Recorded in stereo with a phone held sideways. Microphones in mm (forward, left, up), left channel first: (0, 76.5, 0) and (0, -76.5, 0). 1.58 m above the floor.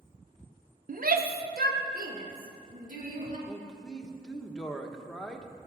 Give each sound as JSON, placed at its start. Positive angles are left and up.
{"t": 0.9, "sound": "a shout", "side_deg": -60, "distance_m": 0.9}
{"t": 3.5, "sound": "a man speaking", "side_deg": 5, "distance_m": 1.2}